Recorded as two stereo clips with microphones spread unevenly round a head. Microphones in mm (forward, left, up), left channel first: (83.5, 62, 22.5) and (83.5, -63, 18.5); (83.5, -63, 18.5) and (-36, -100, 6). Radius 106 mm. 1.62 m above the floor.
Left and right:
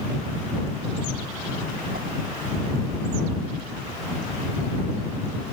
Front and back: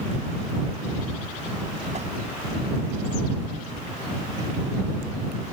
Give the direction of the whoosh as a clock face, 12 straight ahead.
4 o'clock.